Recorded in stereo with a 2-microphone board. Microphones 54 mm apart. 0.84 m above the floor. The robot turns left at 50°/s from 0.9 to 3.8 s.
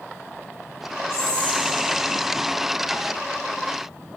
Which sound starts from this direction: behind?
Whispering, at 1.1 s.